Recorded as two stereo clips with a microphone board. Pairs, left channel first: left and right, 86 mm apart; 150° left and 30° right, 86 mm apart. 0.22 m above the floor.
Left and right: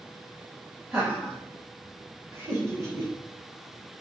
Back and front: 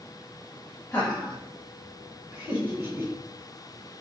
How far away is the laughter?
About 1.3 m.